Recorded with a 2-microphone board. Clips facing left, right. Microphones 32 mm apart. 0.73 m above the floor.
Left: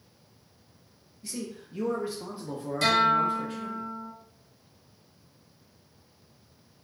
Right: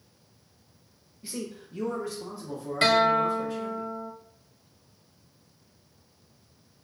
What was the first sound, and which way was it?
A man speaking, 20° right (ahead or behind).